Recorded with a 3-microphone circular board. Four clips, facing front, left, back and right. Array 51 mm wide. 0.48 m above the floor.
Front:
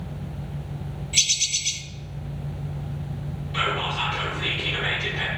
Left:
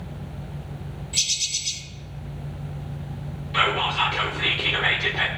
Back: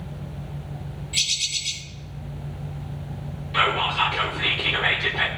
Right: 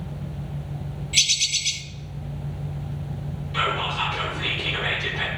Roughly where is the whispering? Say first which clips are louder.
Left 3 dB, back 4 dB; behind left.